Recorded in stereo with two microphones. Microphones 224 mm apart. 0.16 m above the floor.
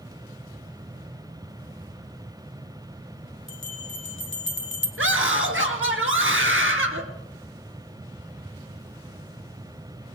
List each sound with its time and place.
3.5 s a bell: 60° left (ahead or behind), 1.5 m
5.0 s a scream: 60° right (ahead or behind), 2 m